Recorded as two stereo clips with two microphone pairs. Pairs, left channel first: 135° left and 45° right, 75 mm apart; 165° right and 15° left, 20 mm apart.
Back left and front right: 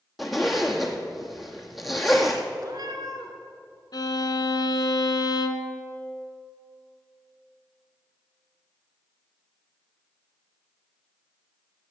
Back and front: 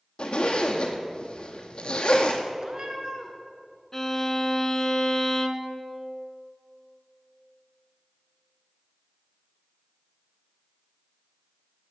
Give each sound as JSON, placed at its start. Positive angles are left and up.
{"t": 0.2, "sound": "a zipper", "azimuth_deg": -135, "distance_m": 1.2}
{"t": 2.6, "sound": "a cat meowing", "azimuth_deg": -30, "distance_m": 1.6}
{"t": 3.9, "sound": "a violin", "azimuth_deg": 130, "distance_m": 0.8}